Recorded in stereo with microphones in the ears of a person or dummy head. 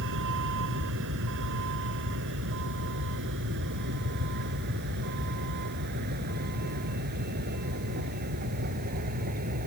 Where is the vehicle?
70° right (ahead or behind); by 9.7 s 50° right (ahead or behind).